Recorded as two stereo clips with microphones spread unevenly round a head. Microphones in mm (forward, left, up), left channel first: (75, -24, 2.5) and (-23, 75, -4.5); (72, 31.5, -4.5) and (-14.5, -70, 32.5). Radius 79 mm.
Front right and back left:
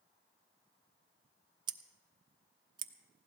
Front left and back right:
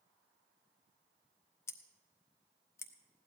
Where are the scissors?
135° left, 0.6 m.